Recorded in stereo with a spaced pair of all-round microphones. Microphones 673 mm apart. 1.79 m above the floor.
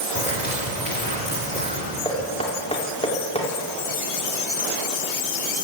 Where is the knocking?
10° left (ahead or behind), 4.5 m.